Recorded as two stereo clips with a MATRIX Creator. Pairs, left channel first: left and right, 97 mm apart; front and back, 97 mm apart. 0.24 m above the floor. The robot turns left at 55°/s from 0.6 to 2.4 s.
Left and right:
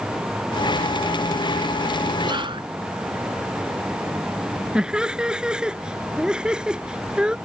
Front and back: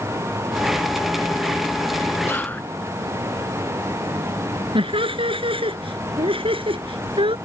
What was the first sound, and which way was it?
Whispering, 60° right.